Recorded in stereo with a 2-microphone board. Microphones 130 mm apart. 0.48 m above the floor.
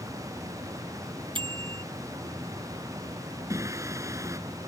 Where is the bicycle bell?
40° right (ahead or behind).